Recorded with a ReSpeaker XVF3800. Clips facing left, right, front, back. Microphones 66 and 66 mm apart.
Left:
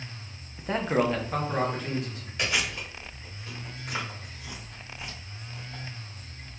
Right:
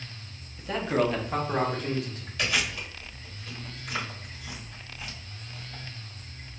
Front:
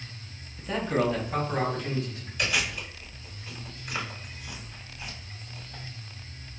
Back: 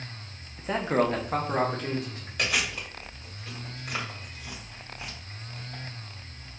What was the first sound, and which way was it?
A man speaking, 120° left.